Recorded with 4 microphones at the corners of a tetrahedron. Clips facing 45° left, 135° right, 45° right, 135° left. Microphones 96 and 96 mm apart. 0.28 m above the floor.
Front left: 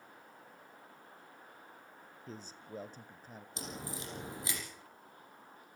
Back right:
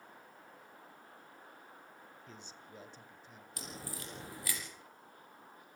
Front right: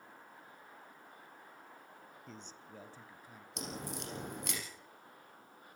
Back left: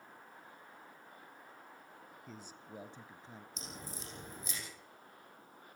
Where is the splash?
No splash in this recording.